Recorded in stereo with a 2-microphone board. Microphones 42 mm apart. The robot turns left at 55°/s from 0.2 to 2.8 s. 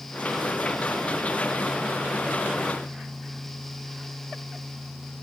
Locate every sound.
Only background noise.